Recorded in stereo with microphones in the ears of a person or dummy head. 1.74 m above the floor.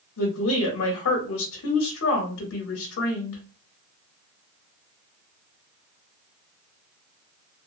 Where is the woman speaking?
75° left (ahead or behind), 0.8 m.